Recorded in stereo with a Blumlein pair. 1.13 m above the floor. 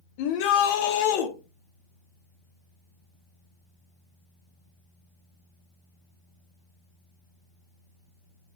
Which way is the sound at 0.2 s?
45° left.